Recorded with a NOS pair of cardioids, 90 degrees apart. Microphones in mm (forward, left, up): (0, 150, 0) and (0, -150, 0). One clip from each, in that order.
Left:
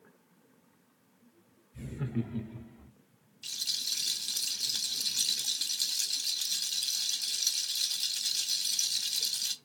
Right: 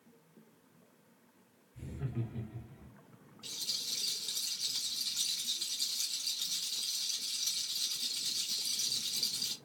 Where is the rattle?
45° left, 1.0 m.